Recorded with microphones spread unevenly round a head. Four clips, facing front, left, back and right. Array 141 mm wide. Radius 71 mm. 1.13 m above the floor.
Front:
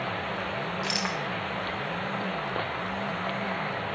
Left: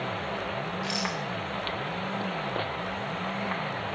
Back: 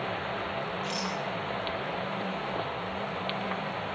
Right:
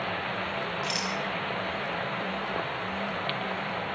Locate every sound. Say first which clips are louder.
0.8 s a rattle: even, front 2 dB; 15° left, 7 m